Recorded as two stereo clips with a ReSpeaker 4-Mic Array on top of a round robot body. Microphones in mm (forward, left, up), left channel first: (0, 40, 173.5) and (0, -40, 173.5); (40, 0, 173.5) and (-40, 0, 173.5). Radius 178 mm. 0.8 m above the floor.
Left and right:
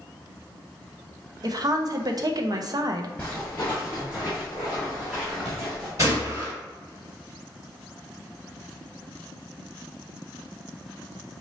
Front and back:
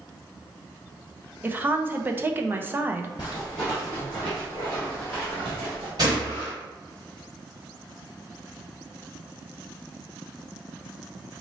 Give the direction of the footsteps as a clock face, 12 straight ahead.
11 o'clock.